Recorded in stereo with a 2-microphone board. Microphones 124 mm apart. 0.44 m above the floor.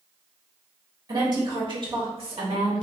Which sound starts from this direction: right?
A woman speaking, at 1.1 s.